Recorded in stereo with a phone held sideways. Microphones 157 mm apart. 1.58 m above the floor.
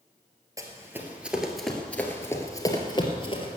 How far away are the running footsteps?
About 1.8 m.